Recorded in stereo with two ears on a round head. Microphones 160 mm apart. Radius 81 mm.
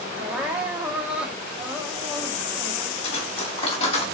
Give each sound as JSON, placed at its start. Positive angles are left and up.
{"t": 0.1, "sound": "crying", "side_deg": -10, "distance_m": 1.6}
{"t": 3.0, "sound": "cutlery clinking", "side_deg": 35, "distance_m": 3.0}